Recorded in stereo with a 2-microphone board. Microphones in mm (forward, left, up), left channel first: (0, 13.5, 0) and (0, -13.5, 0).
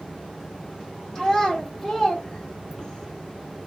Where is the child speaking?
15° left (ahead or behind), 1.5 m.